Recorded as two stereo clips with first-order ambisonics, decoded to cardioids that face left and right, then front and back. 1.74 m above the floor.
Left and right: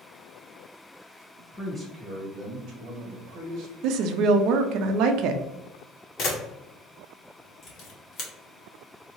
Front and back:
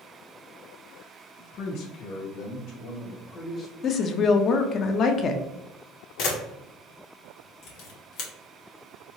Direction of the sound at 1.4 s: 25° left.